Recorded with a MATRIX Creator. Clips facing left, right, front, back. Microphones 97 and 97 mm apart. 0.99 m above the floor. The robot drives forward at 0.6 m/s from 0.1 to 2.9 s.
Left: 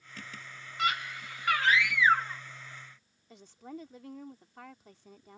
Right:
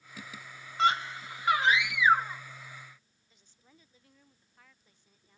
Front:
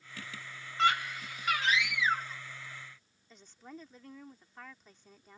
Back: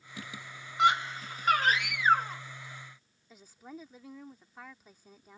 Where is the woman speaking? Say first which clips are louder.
Left 20 dB, back 2 dB; 100° left.